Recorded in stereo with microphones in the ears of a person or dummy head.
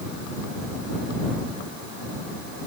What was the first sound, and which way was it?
Only background noise.